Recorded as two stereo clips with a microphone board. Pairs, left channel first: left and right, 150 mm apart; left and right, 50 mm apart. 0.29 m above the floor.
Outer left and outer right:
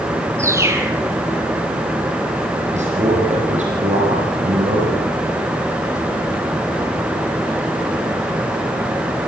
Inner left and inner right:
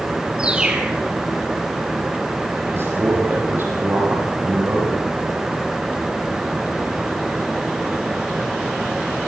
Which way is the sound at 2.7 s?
50° right (ahead or behind).